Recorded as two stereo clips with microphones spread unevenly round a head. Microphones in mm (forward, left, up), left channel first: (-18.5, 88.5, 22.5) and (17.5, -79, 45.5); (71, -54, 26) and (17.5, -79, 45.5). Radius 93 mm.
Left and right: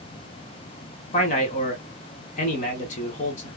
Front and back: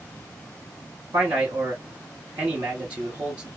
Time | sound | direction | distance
1.1 | a man speaking | 155° left | 1.2 m